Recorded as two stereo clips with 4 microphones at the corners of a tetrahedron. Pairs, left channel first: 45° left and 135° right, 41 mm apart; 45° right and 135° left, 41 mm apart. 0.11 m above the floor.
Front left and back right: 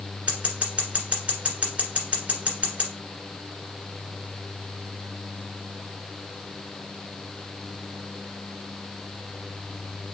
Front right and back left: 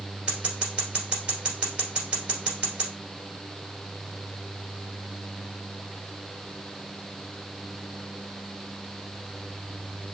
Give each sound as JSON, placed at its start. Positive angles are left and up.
{"t": 0.3, "sound": "scissors", "azimuth_deg": -175, "distance_m": 1.9}